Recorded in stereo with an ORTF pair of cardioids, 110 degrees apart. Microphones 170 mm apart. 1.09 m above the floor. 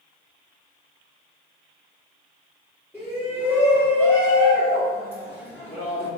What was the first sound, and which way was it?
A shout, 15° right.